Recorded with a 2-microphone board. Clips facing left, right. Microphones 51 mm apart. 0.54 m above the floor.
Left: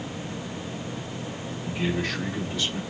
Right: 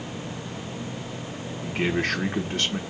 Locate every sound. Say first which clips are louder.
1.6 s a man speaking: right 3 dB; 50° right (ahead or behind), 0.9 m